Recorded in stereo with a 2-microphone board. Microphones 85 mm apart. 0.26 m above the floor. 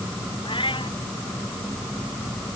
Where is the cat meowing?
85° left.